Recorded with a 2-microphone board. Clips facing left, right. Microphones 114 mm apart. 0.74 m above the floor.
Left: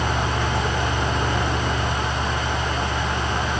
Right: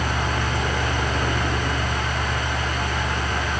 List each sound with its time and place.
Only background noise.